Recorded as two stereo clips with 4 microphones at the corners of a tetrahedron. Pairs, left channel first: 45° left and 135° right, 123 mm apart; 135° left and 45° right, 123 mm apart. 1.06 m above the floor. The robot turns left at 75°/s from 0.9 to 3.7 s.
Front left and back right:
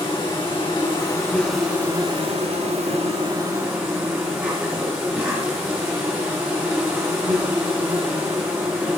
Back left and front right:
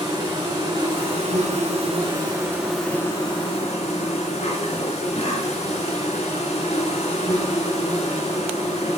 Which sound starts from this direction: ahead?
An insect, at 0.0 s.